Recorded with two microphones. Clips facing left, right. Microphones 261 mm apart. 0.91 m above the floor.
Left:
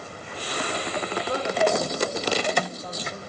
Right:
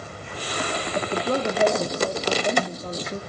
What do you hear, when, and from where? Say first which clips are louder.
0.9 s a woman speaking: right 6 dB; 45° right (ahead or behind), 1.5 m